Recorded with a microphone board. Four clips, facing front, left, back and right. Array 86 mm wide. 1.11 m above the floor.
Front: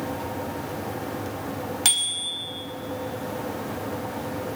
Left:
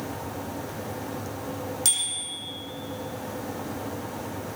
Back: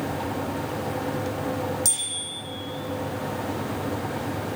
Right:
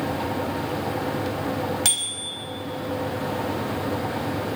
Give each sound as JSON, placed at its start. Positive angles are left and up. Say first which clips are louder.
{"t": 1.9, "sound": "a bicycle bell", "louder": "right 5 dB, front 3 dB", "azimuth_deg": -30, "distance_m": 4.5}